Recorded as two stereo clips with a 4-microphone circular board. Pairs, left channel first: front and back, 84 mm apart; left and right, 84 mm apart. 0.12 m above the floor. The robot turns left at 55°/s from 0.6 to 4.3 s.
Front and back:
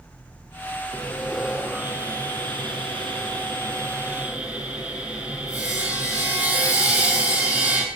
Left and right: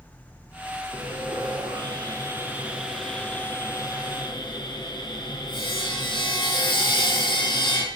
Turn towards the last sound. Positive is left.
turn(degrees=110)